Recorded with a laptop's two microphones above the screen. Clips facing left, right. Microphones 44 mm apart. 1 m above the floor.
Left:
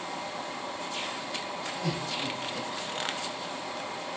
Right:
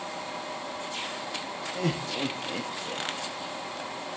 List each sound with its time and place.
1.8 s laughter: 50° right (ahead or behind), 1.4 m